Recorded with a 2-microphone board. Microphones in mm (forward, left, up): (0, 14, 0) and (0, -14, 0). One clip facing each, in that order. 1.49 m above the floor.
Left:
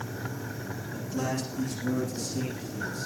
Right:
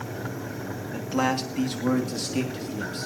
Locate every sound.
0.9 s a man speaking: 45° right (ahead or behind), 2.5 m; by 3.1 s 75° right (ahead or behind), 3.5 m